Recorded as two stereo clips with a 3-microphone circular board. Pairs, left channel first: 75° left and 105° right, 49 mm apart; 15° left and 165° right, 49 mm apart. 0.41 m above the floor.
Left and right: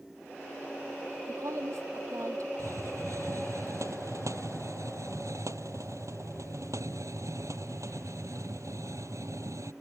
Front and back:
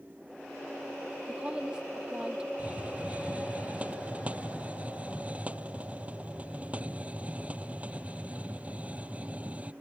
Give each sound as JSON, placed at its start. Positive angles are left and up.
{"t": 1.3, "sound": "a woman speaking", "azimuth_deg": -95}
{"t": 2.6, "sound": "a hiss", "azimuth_deg": -105}